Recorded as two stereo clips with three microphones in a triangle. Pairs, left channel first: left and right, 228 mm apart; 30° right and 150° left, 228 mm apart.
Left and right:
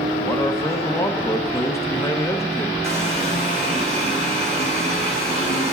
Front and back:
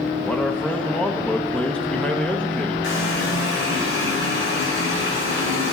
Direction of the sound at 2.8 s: 30° right.